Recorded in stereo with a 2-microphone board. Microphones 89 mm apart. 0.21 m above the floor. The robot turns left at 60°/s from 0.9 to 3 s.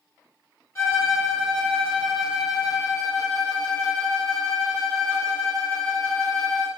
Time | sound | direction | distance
0.8 | a violin | 140° left | 2.0 m